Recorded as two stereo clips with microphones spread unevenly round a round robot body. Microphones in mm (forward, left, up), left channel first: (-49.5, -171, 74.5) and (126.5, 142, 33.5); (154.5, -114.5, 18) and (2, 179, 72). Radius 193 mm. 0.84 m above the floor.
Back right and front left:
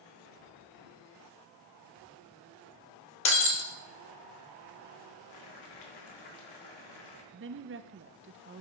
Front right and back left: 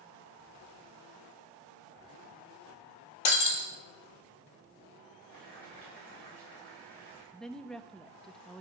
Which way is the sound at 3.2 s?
75° right.